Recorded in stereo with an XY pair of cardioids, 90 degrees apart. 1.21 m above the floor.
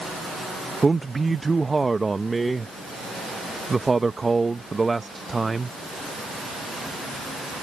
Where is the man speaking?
20° right.